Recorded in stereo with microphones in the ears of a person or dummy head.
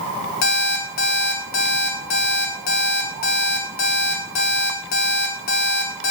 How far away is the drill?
I don't hear a drill.